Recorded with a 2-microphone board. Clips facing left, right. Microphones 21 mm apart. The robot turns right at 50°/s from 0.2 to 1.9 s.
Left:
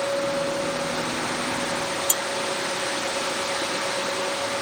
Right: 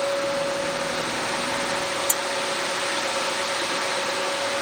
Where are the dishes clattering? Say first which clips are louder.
Even; 40° left (ahead or behind).